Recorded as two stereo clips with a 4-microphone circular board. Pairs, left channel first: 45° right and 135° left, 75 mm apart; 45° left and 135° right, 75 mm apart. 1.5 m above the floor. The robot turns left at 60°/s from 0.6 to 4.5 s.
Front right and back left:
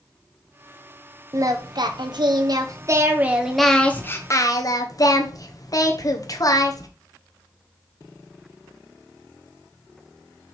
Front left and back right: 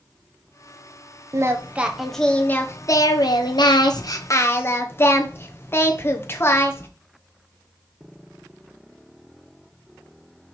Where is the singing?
Straight behind, 1.1 m; by 6.9 s 10° right, 1.1 m.